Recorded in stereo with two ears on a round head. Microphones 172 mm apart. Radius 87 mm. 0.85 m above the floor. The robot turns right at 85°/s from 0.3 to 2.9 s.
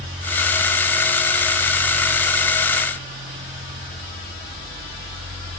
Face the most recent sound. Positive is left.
No sound to turn to.